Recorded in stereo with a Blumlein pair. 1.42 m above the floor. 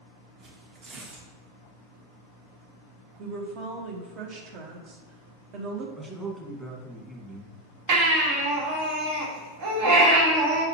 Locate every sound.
0.4 s tearing paper: 30° right, 1.4 m
3.2 s a woman speaking: 35° right, 1.5 m
6.0 s a man speaking: 10° right, 1.9 m
7.9 s a baby crying: 50° right, 1.8 m